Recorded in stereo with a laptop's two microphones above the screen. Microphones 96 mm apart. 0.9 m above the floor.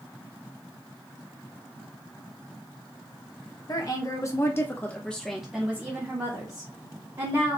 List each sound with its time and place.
3.7 s a woman speaking: 40° left (ahead or behind), 1.2 m; by 7.6 s 45° right (ahead or behind), 1.5 m